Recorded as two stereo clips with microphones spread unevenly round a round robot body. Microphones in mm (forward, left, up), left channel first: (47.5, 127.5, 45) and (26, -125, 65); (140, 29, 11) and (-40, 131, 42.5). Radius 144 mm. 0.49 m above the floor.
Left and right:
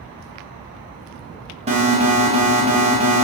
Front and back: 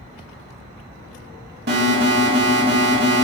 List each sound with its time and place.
1.7 s an alarm: 160° right, 1.8 m